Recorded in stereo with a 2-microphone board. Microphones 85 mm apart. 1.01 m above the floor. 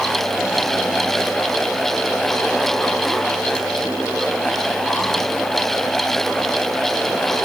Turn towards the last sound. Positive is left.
No sound to turn to.